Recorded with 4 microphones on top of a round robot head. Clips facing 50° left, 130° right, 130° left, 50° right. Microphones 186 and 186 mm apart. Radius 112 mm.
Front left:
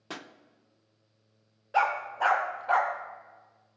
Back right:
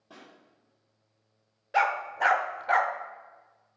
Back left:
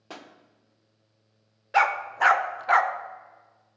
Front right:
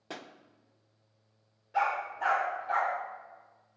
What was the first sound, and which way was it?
A pop, 35° left.